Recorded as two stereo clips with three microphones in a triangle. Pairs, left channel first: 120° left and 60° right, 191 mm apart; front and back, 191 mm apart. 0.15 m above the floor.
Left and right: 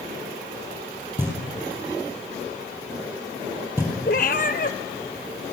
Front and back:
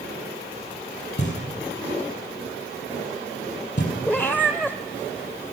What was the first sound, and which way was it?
Knocking, 20° left.